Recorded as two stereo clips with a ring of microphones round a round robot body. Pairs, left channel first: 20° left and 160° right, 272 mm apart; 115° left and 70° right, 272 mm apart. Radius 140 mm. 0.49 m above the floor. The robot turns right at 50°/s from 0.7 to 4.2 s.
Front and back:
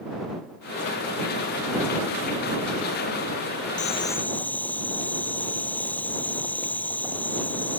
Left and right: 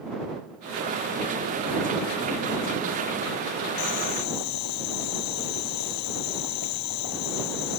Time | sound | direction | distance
3.8 | boiling | 85° left | ?